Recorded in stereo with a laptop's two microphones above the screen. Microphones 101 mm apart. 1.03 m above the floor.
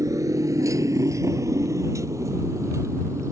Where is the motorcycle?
40° right (ahead or behind); by 3.3 s 35° right (ahead or behind).